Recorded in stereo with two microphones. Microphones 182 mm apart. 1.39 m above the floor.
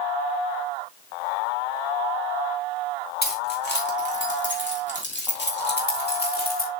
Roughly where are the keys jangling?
Left.